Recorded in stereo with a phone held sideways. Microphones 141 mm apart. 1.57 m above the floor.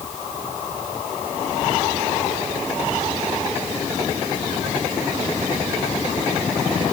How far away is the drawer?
No drawer in this recording.